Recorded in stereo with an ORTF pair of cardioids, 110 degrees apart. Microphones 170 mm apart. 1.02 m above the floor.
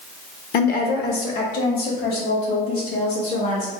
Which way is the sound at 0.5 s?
65° left.